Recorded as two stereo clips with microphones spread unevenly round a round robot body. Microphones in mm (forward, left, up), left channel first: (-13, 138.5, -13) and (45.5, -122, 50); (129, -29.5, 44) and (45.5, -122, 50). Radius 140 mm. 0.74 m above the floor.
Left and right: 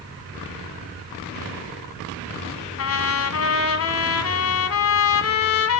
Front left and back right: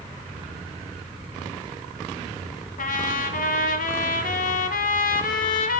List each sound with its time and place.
2.8 s a trumpet: 60° left, 1.5 m